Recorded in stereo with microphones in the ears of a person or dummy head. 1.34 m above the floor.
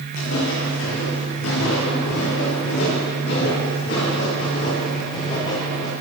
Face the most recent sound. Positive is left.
turn(degrees=30)  # may be behind; listen again after turning